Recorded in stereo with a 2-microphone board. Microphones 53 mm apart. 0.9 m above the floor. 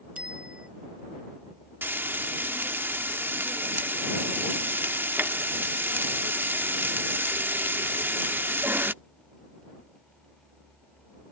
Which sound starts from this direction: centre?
A bicycle bell, at 0.2 s.